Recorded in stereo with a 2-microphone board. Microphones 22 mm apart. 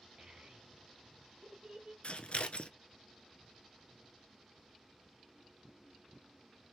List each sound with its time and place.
0.2 s a child speaking: 45° right (ahead or behind), 2 m
2.0 s scissors: 55° left (ahead or behind), 0.6 m